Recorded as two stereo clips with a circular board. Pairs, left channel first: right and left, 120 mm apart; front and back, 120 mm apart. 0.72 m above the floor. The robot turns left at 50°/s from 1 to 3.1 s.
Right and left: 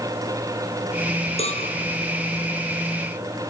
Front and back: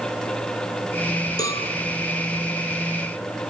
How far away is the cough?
I don't hear a cough.